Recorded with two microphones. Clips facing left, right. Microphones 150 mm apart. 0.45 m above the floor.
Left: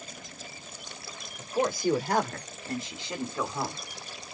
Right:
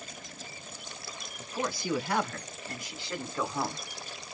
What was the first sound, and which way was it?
A man speaking, 55° left (ahead or behind).